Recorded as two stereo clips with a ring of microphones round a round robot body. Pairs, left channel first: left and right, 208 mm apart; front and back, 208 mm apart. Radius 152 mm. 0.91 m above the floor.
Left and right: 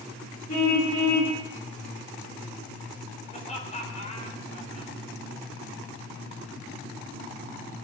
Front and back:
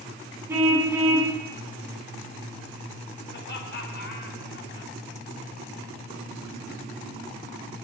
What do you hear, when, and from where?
0.5 s a car horn: 100° left, 4.5 m
3.3 s laughter: 35° left, 4.5 m